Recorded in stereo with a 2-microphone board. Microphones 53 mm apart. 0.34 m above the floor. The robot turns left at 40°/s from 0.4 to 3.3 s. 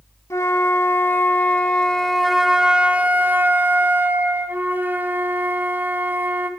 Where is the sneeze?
No sneeze in this recording.